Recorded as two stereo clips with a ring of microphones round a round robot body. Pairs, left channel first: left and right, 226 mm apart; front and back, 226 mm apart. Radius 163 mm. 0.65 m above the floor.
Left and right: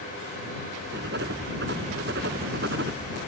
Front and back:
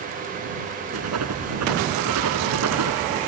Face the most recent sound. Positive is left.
turn(degrees=-150)